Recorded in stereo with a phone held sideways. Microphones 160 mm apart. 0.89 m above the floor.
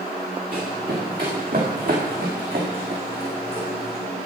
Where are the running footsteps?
65° right (ahead or behind), 5 m; by 4.0 s 70° right (ahead or behind), 3.5 m.